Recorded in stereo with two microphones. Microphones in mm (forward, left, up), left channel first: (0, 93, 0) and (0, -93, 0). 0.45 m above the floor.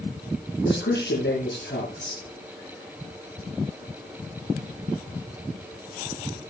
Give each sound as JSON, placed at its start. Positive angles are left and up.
{"t": 0.6, "sound": "a man speaking", "side_deg": 80, "distance_m": 6.5}